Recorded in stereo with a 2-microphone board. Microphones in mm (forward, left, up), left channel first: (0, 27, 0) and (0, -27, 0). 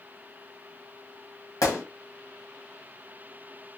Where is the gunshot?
85° left, 1.2 m.